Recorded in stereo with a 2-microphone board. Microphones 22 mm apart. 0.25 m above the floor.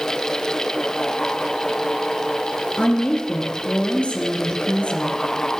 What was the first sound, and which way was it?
A woman speaking, 75° left (ahead or behind).